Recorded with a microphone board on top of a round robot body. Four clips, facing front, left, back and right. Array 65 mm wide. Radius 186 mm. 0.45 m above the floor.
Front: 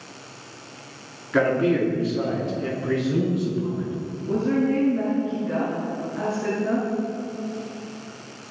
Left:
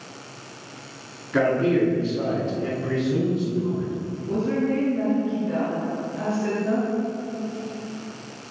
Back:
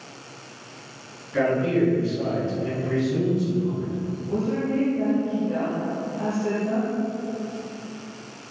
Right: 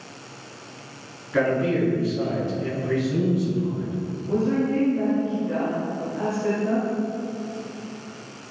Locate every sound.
1.3 s a man speaking: 15° left, 7.5 m; by 4.0 s 5° left, 8 m
4.3 s a woman speaking: 5° left, 7.5 m